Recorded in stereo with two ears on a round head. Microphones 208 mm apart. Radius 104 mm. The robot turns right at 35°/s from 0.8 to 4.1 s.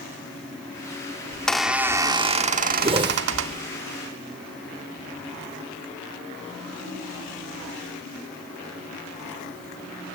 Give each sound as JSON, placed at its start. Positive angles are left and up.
{"t": 1.3, "sound": "a squeak", "azimuth_deg": 170, "distance_m": 1.4}
{"t": 2.8, "sound": "a whoosh", "side_deg": -25, "distance_m": 0.6}